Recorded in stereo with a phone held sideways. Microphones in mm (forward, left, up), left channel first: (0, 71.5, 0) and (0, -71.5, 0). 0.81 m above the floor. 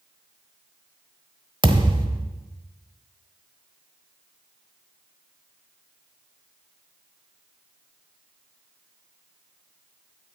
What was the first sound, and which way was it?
A thud, 35° right (ahead or behind).